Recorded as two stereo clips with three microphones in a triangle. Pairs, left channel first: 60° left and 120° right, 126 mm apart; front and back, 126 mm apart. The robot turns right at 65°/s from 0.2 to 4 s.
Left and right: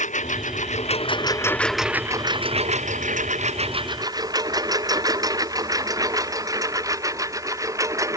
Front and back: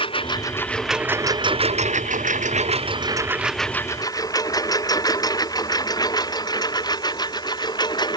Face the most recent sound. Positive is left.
turn(degrees=-55)